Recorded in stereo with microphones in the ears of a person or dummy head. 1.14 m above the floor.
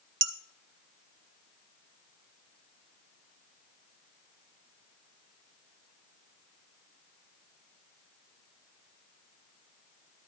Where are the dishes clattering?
20° right (ahead or behind), 0.6 m.